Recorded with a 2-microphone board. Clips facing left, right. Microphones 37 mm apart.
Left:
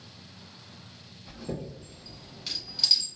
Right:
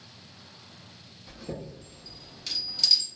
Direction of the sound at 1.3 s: 10° left (ahead or behind).